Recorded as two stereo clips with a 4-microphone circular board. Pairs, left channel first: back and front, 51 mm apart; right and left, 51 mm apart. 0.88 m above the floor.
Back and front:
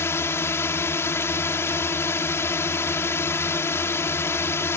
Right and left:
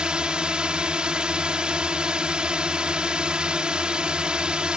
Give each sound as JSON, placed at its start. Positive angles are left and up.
{"t": 0.0, "sound": "a drone", "azimuth_deg": 160}